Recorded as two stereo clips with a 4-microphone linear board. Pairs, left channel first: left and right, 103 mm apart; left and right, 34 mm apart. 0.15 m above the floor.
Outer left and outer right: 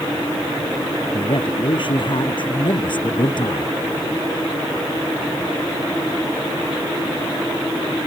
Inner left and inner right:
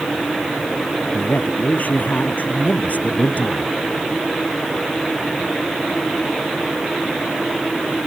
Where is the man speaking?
50° left (ahead or behind).